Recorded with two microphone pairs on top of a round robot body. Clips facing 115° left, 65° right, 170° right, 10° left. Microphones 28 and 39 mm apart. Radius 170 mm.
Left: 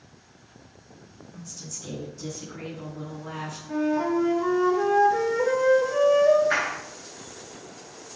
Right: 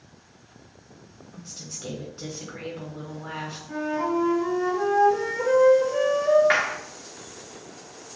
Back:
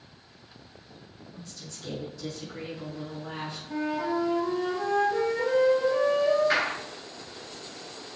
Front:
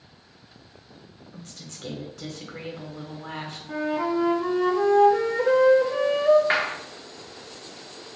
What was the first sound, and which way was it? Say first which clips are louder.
A woman speaking: right 1 dB, front 2 dB; 10° right.